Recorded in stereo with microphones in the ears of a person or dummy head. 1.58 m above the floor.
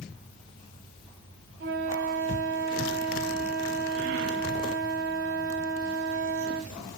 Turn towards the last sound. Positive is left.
turn(degrees=-40)  # may be behind; listen again after turning